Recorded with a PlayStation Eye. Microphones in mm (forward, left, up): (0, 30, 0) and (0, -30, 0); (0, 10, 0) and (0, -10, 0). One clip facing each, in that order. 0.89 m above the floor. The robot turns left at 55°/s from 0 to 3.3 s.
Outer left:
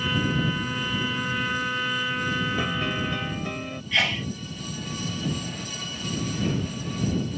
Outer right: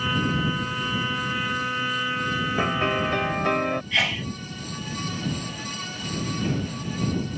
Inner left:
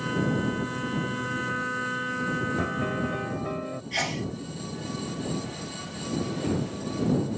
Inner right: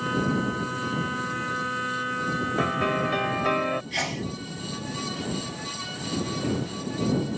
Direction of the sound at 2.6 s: 30° right.